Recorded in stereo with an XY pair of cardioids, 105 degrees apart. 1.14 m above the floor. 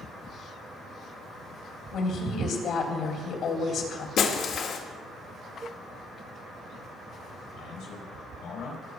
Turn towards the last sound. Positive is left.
turn(degrees=65)